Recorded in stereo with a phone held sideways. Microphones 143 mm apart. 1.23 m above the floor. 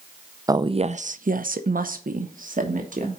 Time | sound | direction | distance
0.5 | a woman speaking | 25° right (ahead or behind) | 0.5 m